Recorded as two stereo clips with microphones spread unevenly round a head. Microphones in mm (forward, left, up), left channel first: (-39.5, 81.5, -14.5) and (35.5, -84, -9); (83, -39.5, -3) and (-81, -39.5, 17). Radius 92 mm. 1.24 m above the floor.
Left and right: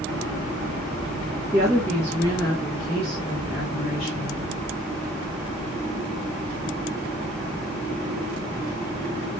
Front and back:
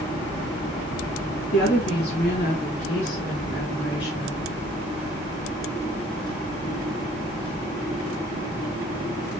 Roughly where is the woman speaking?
Ahead.